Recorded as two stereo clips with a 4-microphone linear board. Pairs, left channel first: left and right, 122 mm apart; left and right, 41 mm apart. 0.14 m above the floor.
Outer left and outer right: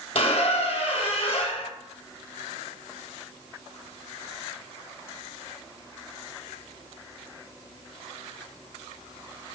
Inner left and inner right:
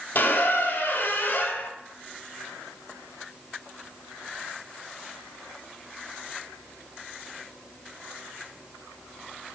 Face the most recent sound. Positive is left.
turn(degrees=55)  # may be behind; listen again after turning